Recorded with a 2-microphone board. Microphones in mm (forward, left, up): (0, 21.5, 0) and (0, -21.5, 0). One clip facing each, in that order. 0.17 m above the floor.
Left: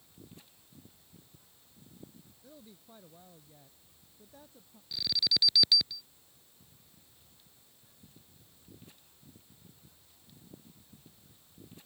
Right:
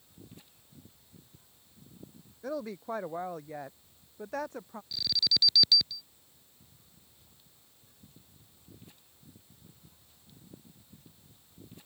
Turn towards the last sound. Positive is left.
turn(degrees=10)  # may be behind; listen again after turning